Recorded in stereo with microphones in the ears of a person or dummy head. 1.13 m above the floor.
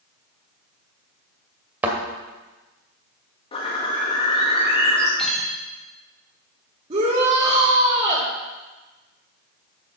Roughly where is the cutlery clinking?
Centre.